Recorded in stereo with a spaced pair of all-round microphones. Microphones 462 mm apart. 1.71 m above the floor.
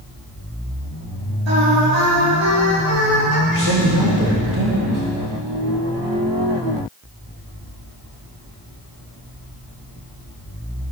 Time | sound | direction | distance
1.5 | singing | 70° right (ahead or behind) | 5 m
3.5 | a man speaking | 40° right (ahead or behind) | 3 m